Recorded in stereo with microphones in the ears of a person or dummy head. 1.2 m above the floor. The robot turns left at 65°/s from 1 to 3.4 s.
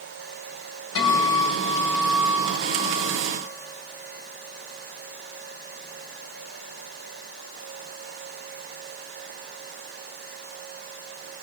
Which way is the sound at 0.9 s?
75° left.